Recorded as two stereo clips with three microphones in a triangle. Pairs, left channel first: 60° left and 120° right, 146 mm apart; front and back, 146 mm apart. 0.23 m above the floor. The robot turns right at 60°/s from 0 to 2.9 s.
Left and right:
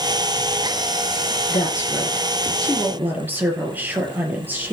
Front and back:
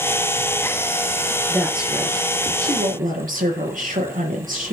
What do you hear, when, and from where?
1.5 s a woman speaking: 80° left, 4 m; by 4.7 s 160° left, 4 m